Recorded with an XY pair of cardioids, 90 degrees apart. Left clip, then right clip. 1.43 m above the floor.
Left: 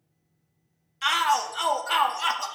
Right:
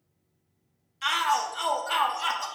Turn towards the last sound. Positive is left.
turn(degrees=30)